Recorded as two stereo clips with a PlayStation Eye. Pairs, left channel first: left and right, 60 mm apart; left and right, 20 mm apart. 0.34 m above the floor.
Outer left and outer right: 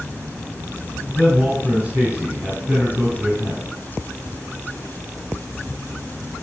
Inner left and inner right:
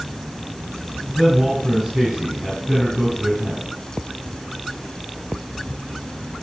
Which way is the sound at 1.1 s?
30° right (ahead or behind).